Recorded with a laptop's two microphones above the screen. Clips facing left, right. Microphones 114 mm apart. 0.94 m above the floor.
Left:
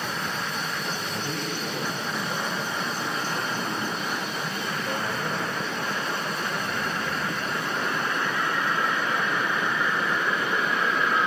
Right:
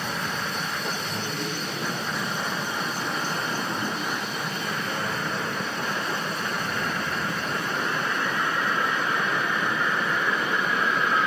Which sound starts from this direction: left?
A man speaking, at 1.0 s.